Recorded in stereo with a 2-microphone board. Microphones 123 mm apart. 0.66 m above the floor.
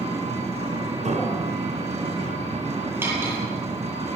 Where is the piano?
75° right (ahead or behind), 4.5 m.